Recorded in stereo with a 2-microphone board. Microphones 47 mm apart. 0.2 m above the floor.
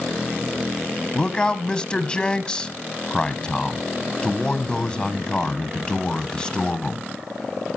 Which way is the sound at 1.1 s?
20° left (ahead or behind).